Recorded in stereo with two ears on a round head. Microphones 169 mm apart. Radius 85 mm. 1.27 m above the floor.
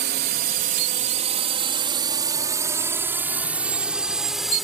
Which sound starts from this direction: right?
A drone, at 0.0 s.